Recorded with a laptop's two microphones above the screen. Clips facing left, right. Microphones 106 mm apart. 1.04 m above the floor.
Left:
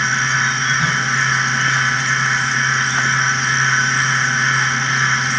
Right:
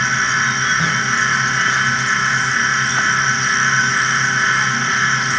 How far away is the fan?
About 1.2 m.